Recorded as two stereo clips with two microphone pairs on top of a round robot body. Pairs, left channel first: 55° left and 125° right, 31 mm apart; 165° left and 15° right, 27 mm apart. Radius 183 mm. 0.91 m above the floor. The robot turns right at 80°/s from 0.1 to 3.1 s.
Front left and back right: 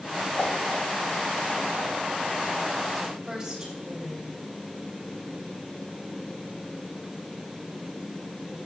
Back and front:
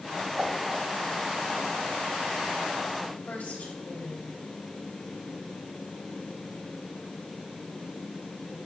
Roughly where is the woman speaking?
Behind.